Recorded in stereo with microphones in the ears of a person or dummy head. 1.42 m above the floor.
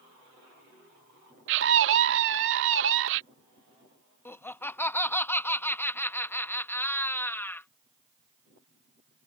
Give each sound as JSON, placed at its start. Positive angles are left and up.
{"t": 1.5, "sound": "a scream", "side_deg": -65}
{"t": 4.2, "sound": "laughter", "side_deg": 15}